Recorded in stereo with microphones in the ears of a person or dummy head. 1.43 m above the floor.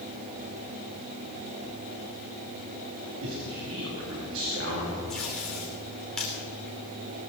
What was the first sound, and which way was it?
A man speaking, 75° right (ahead or behind).